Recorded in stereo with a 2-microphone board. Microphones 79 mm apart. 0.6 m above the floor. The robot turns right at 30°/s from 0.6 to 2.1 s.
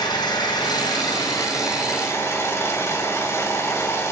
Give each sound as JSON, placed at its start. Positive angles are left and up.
{"t": 0.0, "sound": "an engine running", "azimuth_deg": 95, "distance_m": 2.5}